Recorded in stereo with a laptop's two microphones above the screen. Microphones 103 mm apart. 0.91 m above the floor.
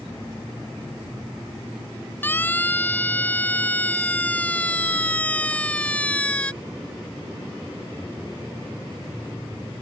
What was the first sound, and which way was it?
A siren, 20° left (ahead or behind).